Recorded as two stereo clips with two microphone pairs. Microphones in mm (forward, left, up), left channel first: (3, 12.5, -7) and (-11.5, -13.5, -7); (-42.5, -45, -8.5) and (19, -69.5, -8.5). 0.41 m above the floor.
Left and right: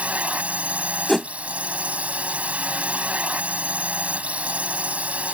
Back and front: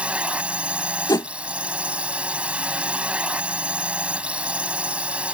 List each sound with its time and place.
0.0 s a drone: 90° right
1.1 s a whoosh: 145° left